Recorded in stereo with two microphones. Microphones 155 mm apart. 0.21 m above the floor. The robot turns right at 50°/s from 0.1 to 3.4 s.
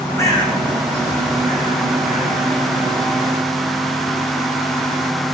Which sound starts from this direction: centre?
A bird, at 0.2 s.